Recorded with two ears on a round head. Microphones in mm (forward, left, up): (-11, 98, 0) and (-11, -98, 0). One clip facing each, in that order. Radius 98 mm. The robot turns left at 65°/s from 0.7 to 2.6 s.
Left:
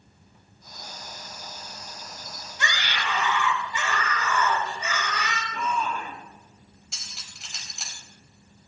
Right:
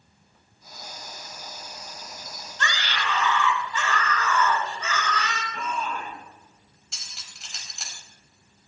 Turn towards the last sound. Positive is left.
turn(degrees=0)  # may be behind; listen again after turning